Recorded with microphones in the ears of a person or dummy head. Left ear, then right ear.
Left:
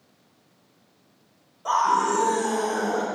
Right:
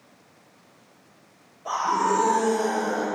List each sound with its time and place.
1.6 s a scream: 30° left (ahead or behind), 3.5 m